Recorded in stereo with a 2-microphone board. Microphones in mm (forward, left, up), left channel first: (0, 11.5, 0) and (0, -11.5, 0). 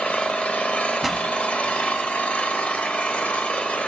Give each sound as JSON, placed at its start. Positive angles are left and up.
{"t": 0.0, "sound": "an engine running", "side_deg": 90, "distance_m": 1.1}
{"t": 1.0, "sound": "a pop", "side_deg": -5, "distance_m": 0.9}